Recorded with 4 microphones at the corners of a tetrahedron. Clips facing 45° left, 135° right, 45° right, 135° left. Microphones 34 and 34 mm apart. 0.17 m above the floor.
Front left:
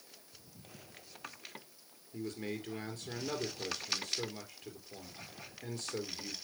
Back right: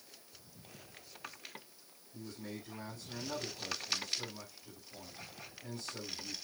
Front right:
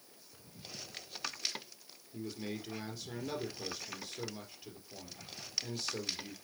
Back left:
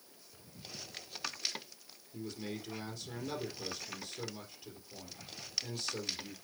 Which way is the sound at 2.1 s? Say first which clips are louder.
Front left 6 dB, front right 1 dB; 30° left.